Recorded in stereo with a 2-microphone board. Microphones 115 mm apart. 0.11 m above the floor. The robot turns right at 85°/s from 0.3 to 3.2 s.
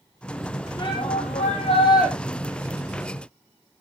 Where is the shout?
40° left, 4.5 m; by 2.1 s 155° left, 4.5 m.